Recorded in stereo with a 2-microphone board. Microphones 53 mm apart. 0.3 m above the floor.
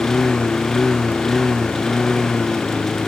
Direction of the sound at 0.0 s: 5° left (ahead or behind).